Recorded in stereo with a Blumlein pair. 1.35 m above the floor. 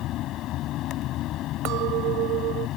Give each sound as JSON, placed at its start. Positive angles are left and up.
{"t": 0.0, "sound": "a fan", "azimuth_deg": 35}
{"t": 1.6, "sound": "a clink", "azimuth_deg": -40}